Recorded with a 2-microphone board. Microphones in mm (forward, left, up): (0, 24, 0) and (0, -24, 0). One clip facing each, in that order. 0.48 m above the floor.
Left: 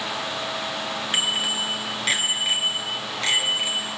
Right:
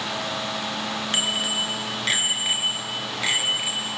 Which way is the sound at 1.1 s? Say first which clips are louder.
Left 1 dB; 5° left (ahead or behind).